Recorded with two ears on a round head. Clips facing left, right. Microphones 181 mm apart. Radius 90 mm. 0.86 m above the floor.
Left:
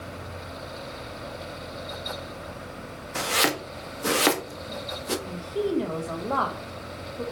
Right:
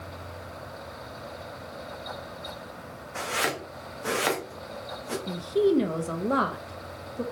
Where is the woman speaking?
25° right (ahead or behind), 0.6 m.